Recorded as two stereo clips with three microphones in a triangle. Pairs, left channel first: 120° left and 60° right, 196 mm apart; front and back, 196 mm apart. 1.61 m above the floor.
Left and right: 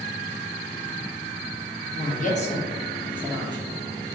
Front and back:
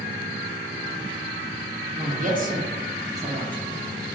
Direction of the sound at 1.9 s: 140° left.